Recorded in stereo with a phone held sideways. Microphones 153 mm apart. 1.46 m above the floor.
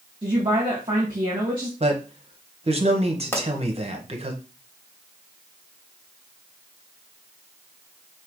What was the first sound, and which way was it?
A woman speaking, 30° right (ahead or behind).